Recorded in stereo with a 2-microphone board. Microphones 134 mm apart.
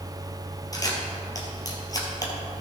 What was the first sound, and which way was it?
A camera shutter, 25° left (ahead or behind).